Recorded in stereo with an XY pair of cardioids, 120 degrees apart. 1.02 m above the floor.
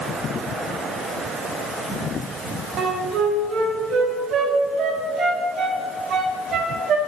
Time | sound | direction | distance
2.8 | a flute | 55° right | 0.9 m